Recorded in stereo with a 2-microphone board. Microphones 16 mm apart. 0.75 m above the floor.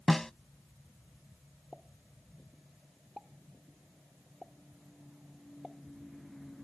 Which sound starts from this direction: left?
A snare drum, at 0.1 s.